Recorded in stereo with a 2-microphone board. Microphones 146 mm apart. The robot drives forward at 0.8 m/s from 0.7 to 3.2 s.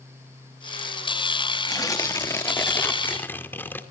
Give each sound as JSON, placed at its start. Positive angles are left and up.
{"t": 1.7, "sound": "tearing paper", "side_deg": 25, "distance_m": 1.1}